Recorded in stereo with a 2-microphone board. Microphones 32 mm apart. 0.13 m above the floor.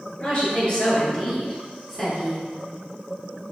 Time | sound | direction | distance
0.2 | a woman speaking | 40° left (ahead or behind) | 1.9 m